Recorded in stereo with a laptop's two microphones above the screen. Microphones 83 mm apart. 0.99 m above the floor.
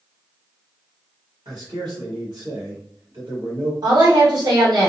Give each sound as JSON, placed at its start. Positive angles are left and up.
{"t": 1.4, "sound": "a man speaking", "side_deg": -70, "distance_m": 1.6}
{"t": 3.8, "sound": "a woman speaking", "side_deg": -55, "distance_m": 1.2}